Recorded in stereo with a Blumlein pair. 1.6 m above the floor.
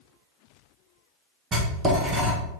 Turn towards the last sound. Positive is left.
turn(degrees=-25)